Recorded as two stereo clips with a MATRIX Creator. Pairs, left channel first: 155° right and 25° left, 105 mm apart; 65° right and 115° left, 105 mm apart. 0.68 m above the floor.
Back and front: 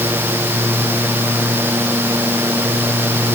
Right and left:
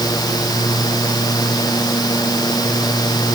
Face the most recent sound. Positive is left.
No sound to turn to.